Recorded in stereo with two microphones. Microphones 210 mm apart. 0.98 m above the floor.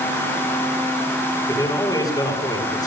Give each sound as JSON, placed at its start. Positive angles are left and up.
{"t": 1.5, "sound": "a man speaking", "side_deg": 20, "distance_m": 7.5}